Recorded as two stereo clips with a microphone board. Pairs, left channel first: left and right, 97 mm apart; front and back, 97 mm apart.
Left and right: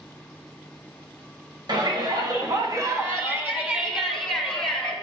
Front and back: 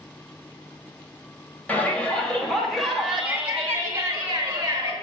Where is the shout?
70° right, 1.4 m; by 4.9 s 170° left, 1.2 m.